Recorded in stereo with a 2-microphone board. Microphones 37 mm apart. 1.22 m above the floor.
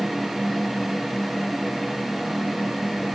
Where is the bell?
No bell in this recording.